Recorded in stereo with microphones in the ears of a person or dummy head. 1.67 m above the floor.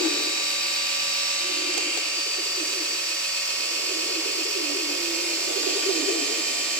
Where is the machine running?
10° left (ahead or behind), 9 m.